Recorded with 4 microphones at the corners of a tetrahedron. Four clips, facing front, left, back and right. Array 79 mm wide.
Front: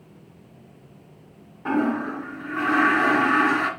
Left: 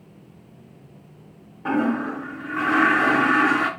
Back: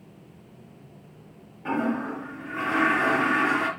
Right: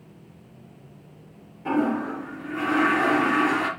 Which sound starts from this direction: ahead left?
A toilet flushing, at 1.6 s.